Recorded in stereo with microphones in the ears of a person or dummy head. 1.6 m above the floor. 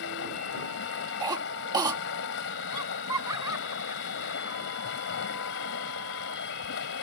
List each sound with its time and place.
0.0 s running water: 60° left (ahead or behind)
1.2 s a cough: 20° right (ahead or behind)
2.7 s laughter: 15° right (ahead or behind)